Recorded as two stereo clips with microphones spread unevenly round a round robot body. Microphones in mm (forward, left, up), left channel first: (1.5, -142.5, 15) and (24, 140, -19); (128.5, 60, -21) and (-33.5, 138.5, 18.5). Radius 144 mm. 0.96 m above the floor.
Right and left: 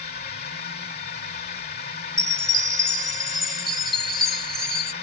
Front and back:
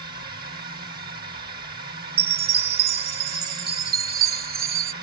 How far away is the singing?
No singing in this recording.